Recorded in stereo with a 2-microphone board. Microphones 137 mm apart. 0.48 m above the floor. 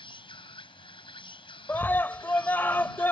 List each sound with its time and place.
0.0 s an insect: 40° left (ahead or behind)
1.7 s a scream: 15° left (ahead or behind)